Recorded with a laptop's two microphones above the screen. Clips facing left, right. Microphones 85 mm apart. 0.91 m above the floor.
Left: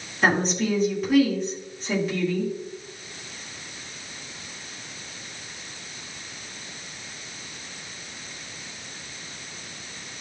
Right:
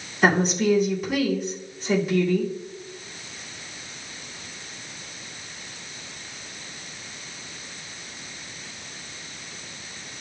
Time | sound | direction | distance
0.2 | a woman speaking | 5° right (ahead or behind) | 2 m